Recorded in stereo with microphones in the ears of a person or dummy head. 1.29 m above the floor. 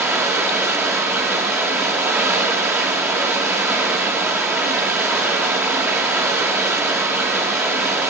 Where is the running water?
5° right (ahead or behind), 2.5 m.